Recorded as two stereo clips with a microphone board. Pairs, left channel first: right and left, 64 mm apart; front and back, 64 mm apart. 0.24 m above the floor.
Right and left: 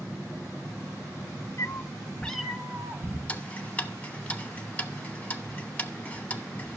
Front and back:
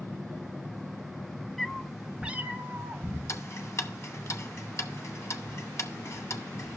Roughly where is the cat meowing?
Right.